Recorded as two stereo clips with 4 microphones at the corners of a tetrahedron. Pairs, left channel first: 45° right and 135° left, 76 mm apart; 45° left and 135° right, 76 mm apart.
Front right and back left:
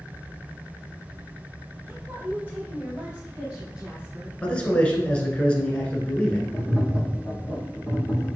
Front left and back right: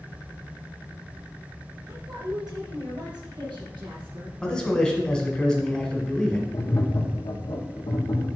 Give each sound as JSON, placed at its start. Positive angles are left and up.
{"t": 1.9, "sound": "a woman speaking", "azimuth_deg": -165, "distance_m": 2.5}
{"t": 4.4, "sound": "a man speaking", "azimuth_deg": -10, "distance_m": 1.6}
{"t": 6.5, "sound": "tapping", "azimuth_deg": 50, "distance_m": 2.5}